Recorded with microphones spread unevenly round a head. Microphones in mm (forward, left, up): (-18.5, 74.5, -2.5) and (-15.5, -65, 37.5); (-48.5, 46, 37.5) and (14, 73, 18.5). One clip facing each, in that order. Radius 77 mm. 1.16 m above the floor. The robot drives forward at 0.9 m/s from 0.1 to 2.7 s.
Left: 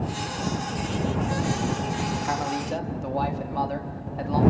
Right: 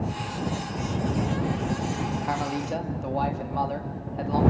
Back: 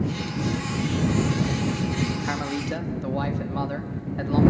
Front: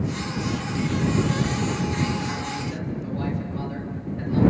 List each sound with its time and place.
2.2 s a man speaking: straight behind, 1.4 m